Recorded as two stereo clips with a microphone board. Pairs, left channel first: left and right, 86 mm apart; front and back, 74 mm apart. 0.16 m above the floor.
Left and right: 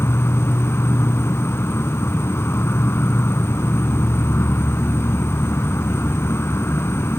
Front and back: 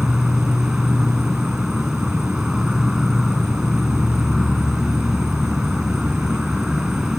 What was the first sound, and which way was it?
An insect, 100° left.